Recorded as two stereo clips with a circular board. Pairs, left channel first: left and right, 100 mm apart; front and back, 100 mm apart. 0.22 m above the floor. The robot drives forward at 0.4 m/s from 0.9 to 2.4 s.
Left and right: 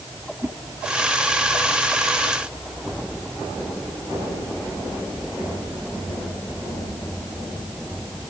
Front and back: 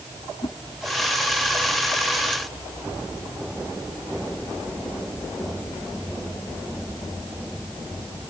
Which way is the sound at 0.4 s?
30° right.